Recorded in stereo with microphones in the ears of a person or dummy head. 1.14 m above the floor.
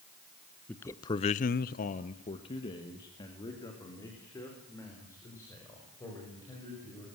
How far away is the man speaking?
About 1.2 m.